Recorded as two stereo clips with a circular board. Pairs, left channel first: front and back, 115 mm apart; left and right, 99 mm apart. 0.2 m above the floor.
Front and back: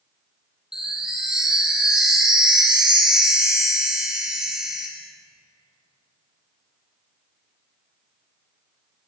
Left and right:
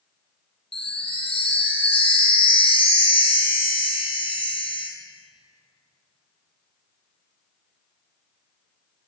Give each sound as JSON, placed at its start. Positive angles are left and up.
{"t": 0.7, "sound": "a chime", "azimuth_deg": 95, "distance_m": 1.1}